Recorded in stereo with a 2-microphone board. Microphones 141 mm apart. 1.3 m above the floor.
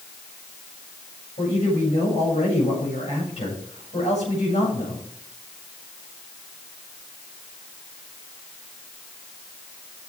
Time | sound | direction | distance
1.4 | a man speaking | 55° left (ahead or behind) | 8 m